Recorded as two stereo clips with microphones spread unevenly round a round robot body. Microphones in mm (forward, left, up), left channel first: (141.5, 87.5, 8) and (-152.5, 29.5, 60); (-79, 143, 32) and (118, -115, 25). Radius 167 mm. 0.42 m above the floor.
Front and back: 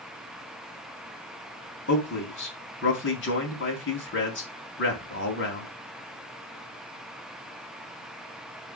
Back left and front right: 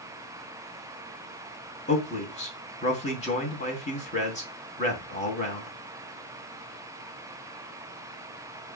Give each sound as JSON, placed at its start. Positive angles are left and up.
{"t": 1.9, "sound": "a man speaking", "azimuth_deg": 60, "distance_m": 3.5}